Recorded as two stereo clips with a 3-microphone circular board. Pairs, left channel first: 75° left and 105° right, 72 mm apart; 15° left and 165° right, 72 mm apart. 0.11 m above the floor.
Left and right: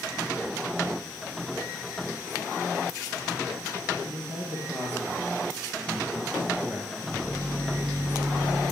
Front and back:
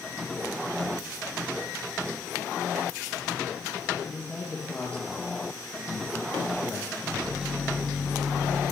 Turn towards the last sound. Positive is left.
turn(degrees=-80)